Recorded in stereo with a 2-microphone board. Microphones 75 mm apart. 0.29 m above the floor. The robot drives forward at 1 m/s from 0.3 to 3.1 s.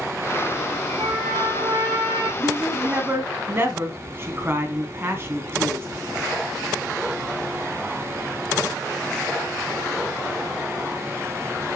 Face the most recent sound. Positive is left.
turn(degrees=-30)  # may be behind; listen again after turning